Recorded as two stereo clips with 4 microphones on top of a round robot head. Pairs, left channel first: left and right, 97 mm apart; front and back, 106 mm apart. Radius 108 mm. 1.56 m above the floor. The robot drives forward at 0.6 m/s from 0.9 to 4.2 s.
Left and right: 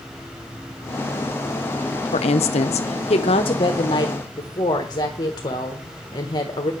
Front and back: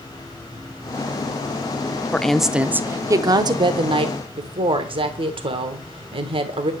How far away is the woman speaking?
About 0.8 m.